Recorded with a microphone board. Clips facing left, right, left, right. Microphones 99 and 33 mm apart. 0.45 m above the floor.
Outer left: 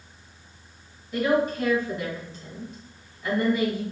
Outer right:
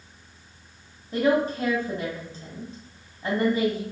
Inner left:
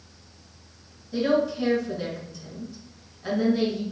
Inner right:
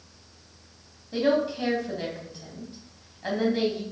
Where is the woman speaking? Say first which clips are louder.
Outer right 1 dB, inner left 1 dB; 35° right (ahead or behind), 2.5 m.